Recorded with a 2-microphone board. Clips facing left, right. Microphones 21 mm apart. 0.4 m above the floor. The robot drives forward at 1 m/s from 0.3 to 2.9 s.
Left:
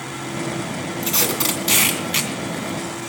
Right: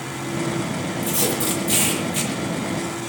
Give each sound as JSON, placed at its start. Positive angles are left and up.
{"t": 1.0, "sound": "tape being pulled", "side_deg": 55, "distance_m": 3.0}